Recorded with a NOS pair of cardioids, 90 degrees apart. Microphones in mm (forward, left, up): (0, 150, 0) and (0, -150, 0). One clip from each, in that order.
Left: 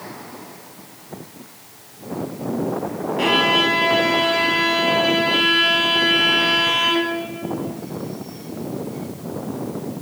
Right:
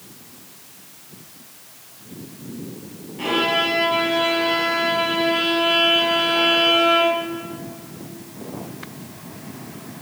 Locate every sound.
3.2 s a violin: 60° left, 7 m